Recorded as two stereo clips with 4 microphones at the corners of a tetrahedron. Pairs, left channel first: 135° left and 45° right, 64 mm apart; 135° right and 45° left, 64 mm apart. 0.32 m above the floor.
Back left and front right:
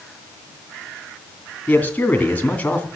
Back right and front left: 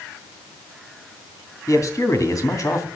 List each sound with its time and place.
1.7 s a man speaking: 160° right, 2.5 m